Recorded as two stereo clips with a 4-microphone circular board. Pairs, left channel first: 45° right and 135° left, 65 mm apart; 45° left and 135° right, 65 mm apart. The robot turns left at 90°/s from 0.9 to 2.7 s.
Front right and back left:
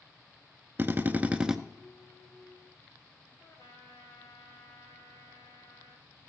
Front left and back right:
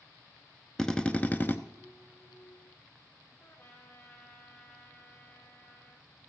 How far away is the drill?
About 0.6 m.